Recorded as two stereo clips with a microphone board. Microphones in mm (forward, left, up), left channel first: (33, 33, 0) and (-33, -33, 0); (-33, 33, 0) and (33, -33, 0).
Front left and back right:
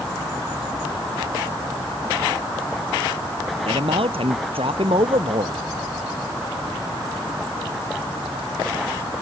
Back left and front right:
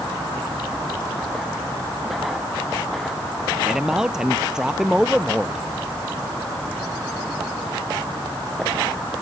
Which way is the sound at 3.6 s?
130° right.